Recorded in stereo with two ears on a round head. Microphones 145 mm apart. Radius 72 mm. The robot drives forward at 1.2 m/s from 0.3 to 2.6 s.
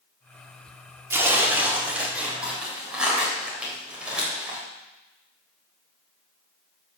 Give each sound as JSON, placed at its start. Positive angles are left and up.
{"t": 1.1, "sound": "tearing paper", "side_deg": -15, "distance_m": 1.6}